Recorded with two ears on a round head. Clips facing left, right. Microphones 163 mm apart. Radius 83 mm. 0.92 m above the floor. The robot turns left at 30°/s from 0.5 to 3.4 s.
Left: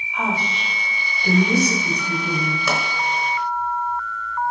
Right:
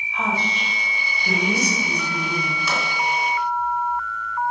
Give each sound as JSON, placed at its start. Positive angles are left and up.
{"t": 0.1, "sound": "a woman speaking", "azimuth_deg": 160, "distance_m": 5.0}
{"t": 2.7, "sound": "a pop", "side_deg": 55, "distance_m": 4.0}